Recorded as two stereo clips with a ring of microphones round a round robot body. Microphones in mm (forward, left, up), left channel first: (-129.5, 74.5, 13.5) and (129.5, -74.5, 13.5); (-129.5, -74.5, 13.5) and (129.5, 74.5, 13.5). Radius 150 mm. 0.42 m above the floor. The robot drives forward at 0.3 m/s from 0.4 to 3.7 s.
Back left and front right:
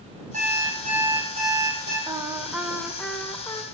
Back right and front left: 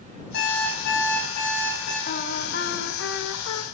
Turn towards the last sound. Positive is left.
turn(degrees=-135)